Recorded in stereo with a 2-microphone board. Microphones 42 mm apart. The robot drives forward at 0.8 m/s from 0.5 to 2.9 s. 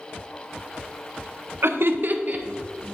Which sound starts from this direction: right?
Laughter, at 1.6 s.